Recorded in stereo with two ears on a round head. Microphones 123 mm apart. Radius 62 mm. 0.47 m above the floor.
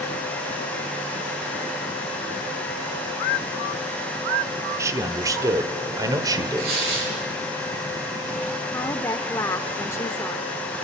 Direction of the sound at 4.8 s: 20° right (ahead or behind).